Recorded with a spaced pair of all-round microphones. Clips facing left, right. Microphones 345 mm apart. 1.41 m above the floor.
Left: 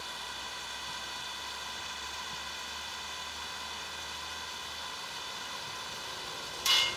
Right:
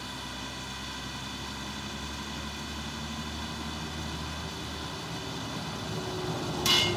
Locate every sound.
0.0 s a vehicle: 75° right (ahead or behind); by 7.0 s 70° right (ahead or behind)